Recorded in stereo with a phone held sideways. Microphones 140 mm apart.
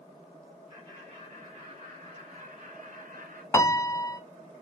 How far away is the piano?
About 0.5 m.